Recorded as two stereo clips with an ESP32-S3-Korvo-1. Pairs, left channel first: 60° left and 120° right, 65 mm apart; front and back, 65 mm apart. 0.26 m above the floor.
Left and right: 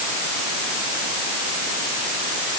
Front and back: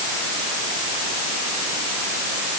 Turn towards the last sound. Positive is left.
No sound to turn to.